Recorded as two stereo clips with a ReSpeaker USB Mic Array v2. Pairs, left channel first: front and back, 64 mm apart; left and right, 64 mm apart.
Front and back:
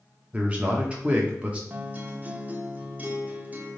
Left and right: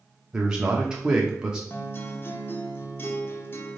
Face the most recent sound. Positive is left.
turn(degrees=125)